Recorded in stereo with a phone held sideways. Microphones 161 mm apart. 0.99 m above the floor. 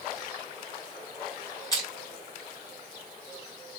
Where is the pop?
I don't hear a pop.